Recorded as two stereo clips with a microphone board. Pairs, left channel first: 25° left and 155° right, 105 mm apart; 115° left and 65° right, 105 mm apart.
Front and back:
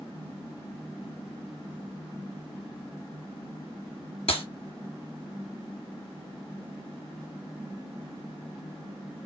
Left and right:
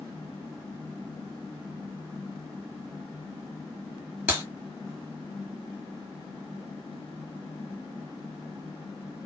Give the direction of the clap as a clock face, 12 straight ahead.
12 o'clock.